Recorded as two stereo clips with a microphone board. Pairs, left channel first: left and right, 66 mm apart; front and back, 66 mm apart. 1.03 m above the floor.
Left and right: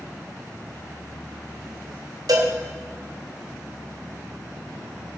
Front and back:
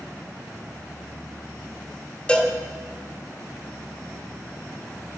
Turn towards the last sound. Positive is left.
turn(degrees=-75)